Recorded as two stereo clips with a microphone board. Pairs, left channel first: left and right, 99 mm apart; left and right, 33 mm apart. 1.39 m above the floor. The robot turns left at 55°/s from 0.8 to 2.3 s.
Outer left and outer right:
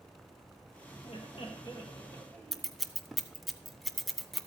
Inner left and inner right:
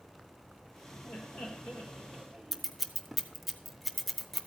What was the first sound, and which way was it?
Laughter, 85° left.